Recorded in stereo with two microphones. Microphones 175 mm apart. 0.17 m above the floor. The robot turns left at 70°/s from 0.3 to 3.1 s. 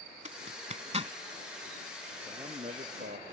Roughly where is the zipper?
Right.